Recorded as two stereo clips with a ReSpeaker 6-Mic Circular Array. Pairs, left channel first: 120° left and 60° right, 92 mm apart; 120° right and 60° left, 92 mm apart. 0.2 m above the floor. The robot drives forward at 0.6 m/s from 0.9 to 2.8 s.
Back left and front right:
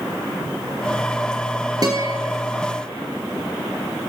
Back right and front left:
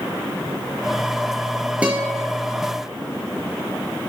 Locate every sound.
1.8 s a guitar: 15° right, 3 m